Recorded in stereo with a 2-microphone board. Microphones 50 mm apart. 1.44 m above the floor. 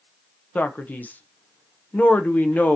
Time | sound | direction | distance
0.6 | a man speaking | 35° left (ahead or behind) | 0.7 m